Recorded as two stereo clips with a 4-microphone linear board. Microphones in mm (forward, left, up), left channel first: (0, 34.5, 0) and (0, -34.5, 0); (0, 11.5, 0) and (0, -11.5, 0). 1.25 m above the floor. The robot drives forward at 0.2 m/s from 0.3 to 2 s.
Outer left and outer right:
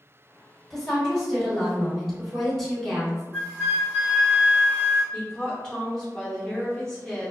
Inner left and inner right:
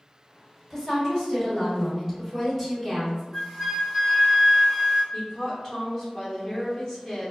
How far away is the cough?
No cough in this recording.